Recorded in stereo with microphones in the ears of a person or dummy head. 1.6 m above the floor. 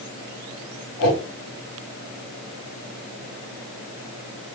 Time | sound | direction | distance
1.0 | a whoosh | 35° left (ahead or behind) | 1.7 m